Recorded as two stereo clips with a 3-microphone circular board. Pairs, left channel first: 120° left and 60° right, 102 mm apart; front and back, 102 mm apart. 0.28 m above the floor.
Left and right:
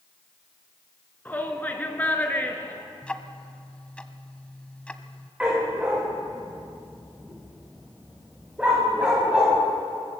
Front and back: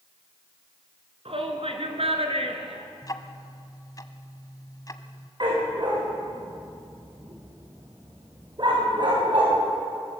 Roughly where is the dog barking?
Behind right.